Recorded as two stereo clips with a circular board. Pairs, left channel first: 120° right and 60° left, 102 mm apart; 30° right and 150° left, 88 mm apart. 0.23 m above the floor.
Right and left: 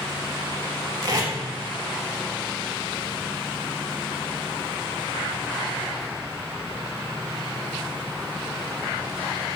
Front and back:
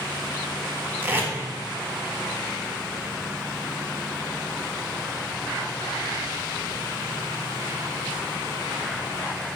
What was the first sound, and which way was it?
Tape being pulled, 95° left.